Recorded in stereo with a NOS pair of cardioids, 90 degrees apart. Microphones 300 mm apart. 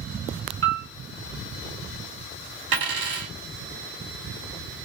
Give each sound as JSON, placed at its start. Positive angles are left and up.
{"t": 0.6, "sound": "a piano", "azimuth_deg": -50, "distance_m": 1.6}
{"t": 2.7, "sound": "a dropped coin", "azimuth_deg": -60, "distance_m": 1.8}